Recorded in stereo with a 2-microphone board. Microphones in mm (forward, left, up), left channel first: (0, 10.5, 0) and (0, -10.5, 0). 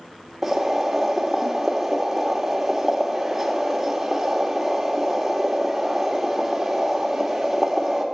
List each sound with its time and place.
0.4 s boiling: 5° right (ahead or behind), 2 m